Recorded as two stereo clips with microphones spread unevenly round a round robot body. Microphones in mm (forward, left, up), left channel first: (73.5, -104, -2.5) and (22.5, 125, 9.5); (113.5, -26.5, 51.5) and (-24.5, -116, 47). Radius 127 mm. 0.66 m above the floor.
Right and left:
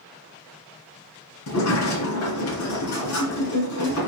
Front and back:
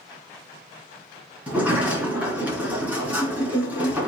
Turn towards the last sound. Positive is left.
turn(degrees=-65)